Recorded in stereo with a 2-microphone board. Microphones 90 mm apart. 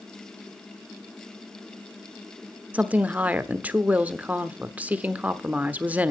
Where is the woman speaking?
15° right (ahead or behind), 0.9 m.